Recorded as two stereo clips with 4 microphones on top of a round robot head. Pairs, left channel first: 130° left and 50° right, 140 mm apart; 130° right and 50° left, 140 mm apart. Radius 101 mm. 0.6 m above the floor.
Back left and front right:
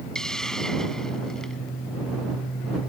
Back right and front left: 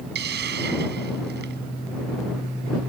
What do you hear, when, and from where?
0.1 s a hiss: 45° left